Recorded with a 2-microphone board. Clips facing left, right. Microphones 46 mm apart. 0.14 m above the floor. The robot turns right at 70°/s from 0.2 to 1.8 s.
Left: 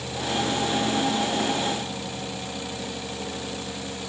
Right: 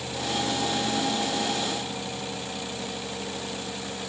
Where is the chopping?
No chopping in this recording.